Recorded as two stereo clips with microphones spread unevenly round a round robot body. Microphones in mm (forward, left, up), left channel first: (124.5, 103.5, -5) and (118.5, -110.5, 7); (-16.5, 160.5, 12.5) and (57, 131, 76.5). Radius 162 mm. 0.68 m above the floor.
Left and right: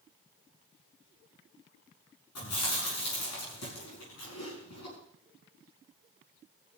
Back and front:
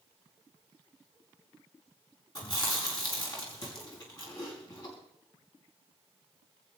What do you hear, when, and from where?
2.4 s chewing: 125° left, 7 m